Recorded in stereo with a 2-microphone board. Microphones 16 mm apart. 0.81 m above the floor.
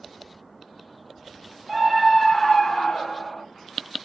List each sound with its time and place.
1.7 s a scream: 15° right (ahead or behind), 1.0 m; by 3.4 s 70° left (ahead or behind), 1.2 m